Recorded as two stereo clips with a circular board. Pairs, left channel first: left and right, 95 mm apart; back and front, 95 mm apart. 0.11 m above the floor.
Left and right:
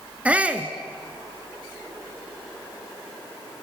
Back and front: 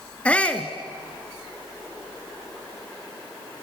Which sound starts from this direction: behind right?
A shout, at 0.2 s.